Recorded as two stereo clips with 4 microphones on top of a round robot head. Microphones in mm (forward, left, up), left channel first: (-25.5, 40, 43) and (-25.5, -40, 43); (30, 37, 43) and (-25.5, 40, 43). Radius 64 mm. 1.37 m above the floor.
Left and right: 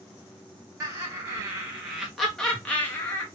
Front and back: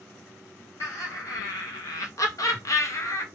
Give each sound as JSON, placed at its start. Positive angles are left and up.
{"t": 0.8, "sound": "laughter", "azimuth_deg": -35, "distance_m": 1.2}